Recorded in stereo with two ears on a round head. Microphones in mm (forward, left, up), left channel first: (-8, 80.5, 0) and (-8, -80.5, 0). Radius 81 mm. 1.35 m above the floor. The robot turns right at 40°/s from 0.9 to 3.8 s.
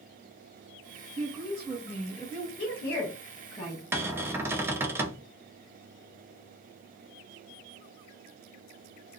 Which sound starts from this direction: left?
A woman speaking, at 2.6 s.